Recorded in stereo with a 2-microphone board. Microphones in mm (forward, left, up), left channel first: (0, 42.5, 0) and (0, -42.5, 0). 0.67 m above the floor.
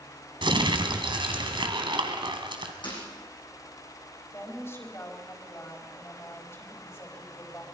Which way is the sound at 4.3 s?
30° left (ahead or behind).